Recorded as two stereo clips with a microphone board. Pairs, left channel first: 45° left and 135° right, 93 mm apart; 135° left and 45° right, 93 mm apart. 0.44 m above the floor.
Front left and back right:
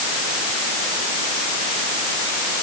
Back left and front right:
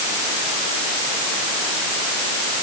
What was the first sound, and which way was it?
Only background noise.